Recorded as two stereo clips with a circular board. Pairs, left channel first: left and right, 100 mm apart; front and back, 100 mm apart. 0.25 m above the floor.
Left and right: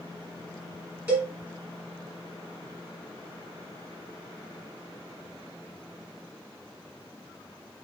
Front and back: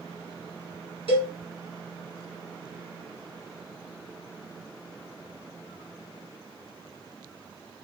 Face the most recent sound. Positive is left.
turn(degrees=-20)